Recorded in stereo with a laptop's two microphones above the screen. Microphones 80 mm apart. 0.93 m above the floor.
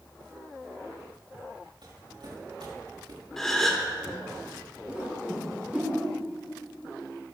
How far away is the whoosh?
About 3 m.